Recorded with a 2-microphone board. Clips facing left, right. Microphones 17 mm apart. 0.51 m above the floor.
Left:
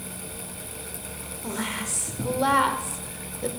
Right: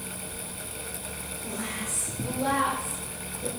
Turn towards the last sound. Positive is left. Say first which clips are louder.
# left 5 dB
turn(degrees=45)  # may be behind; listen again after turning